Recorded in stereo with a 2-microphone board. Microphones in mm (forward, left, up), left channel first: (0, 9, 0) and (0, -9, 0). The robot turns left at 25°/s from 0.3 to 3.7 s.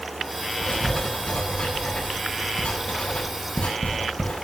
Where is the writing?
30° left (ahead or behind), 8 m; by 4.4 s 75° left (ahead or behind), 8 m.